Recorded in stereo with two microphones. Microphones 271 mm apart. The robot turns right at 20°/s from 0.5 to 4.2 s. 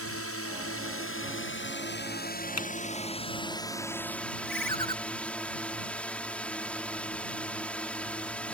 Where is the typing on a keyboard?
75° left (ahead or behind); by 2.7 s 80° left.